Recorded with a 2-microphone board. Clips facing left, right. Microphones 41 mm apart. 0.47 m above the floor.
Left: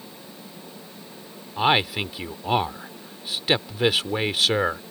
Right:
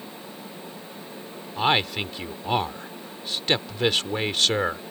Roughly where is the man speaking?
Centre.